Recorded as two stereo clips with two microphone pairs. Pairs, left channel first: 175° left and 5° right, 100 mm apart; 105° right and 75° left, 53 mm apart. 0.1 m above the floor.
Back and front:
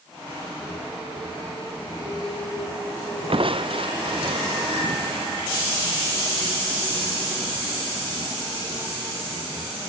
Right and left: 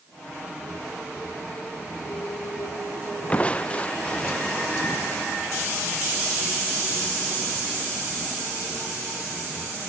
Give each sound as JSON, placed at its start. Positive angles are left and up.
{"t": 3.3, "sound": "crushing", "azimuth_deg": -35}